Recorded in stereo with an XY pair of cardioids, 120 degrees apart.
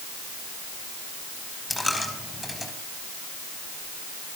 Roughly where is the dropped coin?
Ahead.